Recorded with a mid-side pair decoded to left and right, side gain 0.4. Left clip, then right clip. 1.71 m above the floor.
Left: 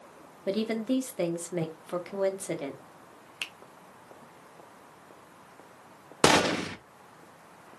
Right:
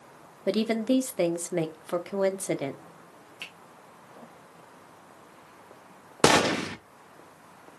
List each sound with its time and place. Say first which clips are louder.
0.5 s a woman speaking: right 4 dB; 35° right, 0.7 m
3.4 s a finger snap: left 4 dB; 60° left, 0.8 m
6.2 s a gunshot: right 1 dB; 10° right, 0.6 m